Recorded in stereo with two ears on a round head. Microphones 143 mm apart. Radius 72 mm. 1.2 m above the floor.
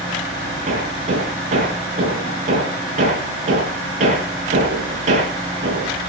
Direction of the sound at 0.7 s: 45° right (ahead or behind).